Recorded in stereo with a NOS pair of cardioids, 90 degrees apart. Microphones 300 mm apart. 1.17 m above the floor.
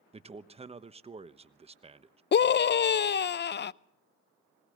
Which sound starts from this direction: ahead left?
A scream, at 2.3 s.